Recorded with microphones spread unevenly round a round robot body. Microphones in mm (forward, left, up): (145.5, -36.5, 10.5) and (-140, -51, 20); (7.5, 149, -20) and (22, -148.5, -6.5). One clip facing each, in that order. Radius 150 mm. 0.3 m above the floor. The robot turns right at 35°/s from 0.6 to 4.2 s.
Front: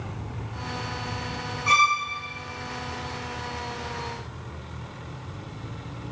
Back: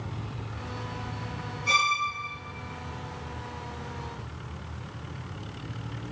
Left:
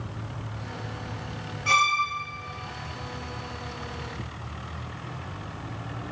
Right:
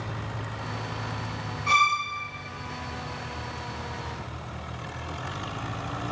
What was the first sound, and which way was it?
A violin, 60° left.